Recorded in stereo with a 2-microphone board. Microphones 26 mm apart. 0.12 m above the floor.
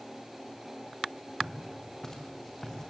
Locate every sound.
1.4 s footsteps: 25° left (ahead or behind), 5.5 m; by 2.9 s 15° left (ahead or behind), 4.5 m